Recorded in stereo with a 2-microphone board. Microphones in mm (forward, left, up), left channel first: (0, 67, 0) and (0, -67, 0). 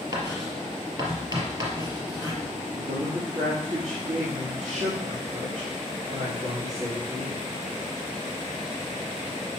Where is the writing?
35° right (ahead or behind), 2 m.